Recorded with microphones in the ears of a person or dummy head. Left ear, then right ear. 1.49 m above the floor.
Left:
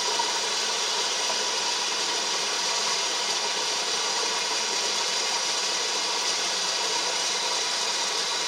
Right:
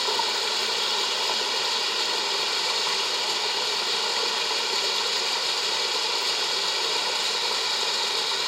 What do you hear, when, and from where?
0.0 s running water: 25° right (ahead or behind), 1.6 m